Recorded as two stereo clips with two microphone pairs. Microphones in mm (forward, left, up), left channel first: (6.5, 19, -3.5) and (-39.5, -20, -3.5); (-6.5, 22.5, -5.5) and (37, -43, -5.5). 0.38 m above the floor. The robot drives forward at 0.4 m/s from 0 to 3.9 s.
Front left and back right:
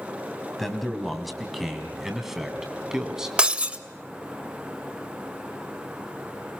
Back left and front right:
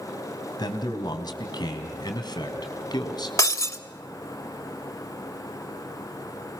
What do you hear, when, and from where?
0.6 s a man speaking: 125° left, 3 m; by 3.3 s 140° left, 3.5 m
3.4 s breaking glass: 155° left, 0.8 m; by 3.8 s 160° left, 0.9 m